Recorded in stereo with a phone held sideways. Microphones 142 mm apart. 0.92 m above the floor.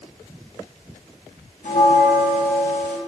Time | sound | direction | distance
1.6 | a bell | 60° left (ahead or behind) | 1.3 m